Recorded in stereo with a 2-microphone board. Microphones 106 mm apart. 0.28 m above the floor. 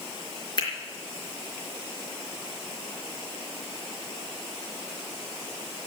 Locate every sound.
0.6 s a finger snap: 45° left (ahead or behind), 4 m